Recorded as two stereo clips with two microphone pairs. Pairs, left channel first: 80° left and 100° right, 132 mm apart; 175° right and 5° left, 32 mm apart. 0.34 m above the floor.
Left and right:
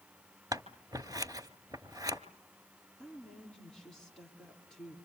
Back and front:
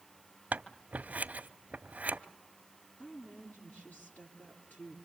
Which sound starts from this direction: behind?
A woman speaking, at 3.0 s.